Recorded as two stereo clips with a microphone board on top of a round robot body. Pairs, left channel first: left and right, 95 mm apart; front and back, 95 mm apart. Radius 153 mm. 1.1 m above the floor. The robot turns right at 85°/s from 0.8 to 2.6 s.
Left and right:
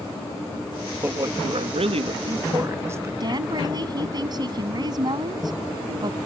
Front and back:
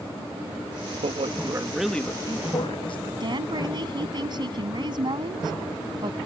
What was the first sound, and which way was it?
A man speaking, 165° right.